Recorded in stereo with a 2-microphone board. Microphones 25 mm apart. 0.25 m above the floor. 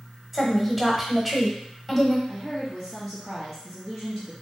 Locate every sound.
0.3 s a woman speaking: 5° right (ahead or behind), 1.1 m
2.3 s a woman speaking: 5° right (ahead or behind), 1.2 m